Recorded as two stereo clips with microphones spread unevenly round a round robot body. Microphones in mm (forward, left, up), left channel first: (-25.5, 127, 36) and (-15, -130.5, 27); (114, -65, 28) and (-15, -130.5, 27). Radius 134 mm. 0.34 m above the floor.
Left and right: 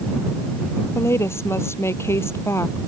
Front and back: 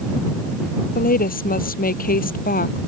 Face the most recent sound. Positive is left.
turn(degrees=10)